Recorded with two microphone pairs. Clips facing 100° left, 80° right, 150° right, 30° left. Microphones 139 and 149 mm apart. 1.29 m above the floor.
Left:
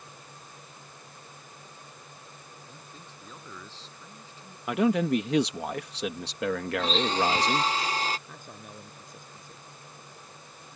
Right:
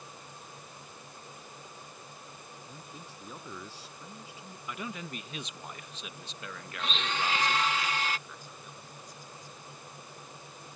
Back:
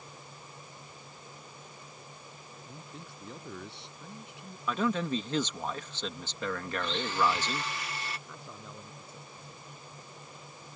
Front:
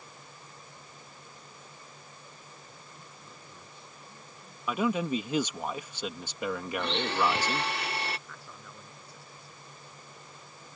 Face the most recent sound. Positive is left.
turn(degrees=140)